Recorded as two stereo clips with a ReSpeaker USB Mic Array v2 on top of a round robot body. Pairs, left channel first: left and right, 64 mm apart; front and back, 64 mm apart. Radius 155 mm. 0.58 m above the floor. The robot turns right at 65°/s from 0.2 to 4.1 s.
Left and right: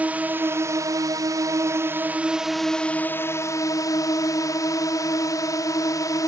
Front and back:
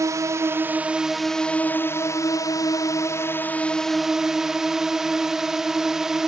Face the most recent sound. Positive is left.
turn(degrees=100)